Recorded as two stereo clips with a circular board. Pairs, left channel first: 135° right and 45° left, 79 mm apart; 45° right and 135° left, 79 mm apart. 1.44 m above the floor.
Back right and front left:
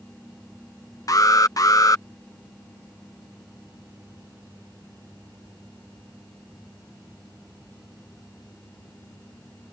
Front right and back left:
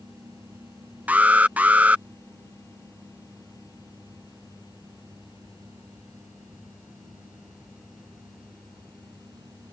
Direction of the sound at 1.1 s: 160° right.